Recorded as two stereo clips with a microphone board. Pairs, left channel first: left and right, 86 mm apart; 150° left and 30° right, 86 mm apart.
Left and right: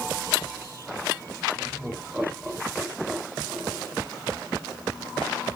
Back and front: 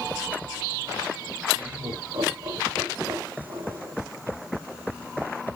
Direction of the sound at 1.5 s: 10° right.